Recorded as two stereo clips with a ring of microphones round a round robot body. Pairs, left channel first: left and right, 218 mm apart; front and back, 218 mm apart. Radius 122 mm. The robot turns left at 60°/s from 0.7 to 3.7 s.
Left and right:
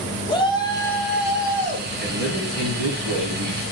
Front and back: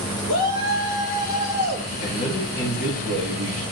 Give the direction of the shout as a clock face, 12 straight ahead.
11 o'clock.